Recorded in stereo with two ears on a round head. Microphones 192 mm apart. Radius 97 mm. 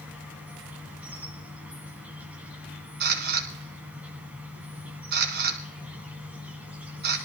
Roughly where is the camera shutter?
Right.